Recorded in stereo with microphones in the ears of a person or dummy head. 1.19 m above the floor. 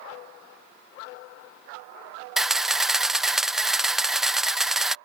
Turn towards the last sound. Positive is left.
turn(degrees=0)  # may be behind; listen again after turning